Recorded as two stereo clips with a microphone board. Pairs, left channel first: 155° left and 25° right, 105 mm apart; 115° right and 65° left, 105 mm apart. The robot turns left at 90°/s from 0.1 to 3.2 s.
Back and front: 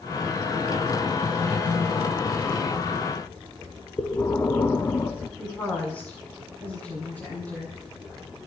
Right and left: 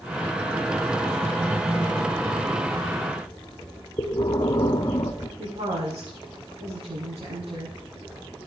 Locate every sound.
4.0 s breathing: 145° right, 1.1 m
5.4 s a woman speaking: 80° left, 8.5 m